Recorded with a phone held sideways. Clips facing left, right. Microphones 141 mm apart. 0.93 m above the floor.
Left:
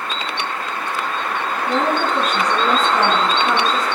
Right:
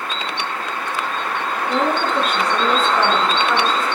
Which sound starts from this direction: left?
A woman speaking, at 1.7 s.